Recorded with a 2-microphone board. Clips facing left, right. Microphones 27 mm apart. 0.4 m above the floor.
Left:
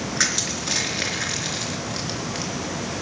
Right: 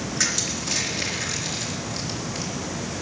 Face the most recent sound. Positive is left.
turn(degrees=30)  # may be behind; listen again after turning